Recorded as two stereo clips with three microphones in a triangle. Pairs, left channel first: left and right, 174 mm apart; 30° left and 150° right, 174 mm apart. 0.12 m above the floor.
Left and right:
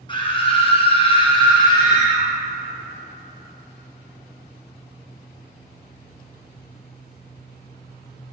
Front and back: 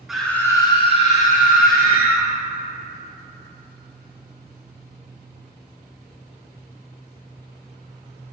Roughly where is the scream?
Behind left.